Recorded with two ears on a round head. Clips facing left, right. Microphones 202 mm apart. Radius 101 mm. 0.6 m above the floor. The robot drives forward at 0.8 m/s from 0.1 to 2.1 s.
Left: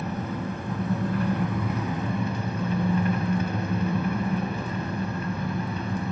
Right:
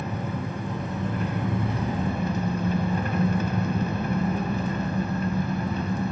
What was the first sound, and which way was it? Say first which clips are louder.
An engine running: even; 15° right (ahead or behind).